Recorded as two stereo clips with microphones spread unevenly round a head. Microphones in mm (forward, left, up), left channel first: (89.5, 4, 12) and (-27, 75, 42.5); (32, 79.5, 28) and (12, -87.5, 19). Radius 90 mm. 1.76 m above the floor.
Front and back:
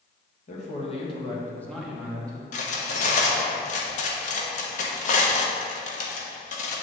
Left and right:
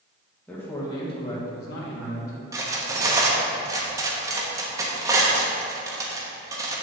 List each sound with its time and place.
0.5 s a man speaking: 5° left, 2.5 m; by 2.4 s 90° left, 1.9 m
2.5 s cutlery clinking: 35° right, 1.0 m